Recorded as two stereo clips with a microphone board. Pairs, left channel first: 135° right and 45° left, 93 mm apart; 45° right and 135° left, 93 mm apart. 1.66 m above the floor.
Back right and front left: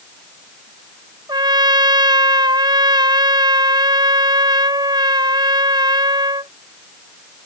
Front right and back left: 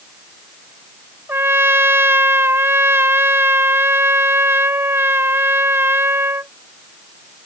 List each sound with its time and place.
1.3 s a trumpet: 75° left